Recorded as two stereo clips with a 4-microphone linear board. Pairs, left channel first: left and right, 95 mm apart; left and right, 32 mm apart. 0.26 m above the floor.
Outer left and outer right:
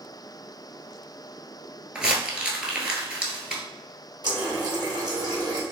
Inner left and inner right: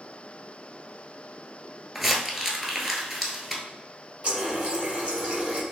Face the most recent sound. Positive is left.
turn(degrees=-45)  # may be behind; listen again after turning